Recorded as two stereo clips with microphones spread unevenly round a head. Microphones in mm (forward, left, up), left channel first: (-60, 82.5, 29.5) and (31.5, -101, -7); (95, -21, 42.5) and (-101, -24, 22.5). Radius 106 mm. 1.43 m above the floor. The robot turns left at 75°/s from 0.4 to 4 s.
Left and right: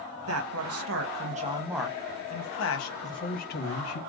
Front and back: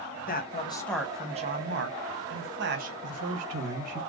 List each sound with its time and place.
0.3 s a man speaking: 45° right, 1.5 m; by 2.9 s 125° left, 1.5 m
3.0 s a man speaking: 170° right, 1.6 m; by 4.0 s 120° left, 1.6 m